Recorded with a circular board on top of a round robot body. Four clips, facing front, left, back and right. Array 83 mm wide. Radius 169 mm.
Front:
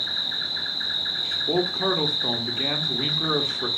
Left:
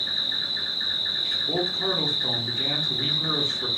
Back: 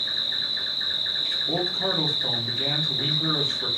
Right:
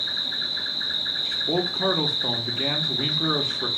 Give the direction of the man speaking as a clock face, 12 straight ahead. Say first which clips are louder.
Right 3 dB, front 4 dB; 2 o'clock.